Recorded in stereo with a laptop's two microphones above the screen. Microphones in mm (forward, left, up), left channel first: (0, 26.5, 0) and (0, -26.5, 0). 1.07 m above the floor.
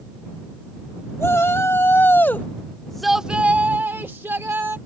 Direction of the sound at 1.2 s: 50° left (ahead or behind).